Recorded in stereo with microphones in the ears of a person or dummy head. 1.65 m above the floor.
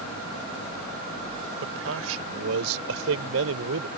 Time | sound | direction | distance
1.6 | a man speaking | 80° right | ?